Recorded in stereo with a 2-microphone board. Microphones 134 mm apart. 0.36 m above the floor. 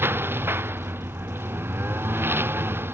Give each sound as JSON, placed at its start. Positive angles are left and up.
{"t": 0.0, "sound": "a lawn mower", "side_deg": -15}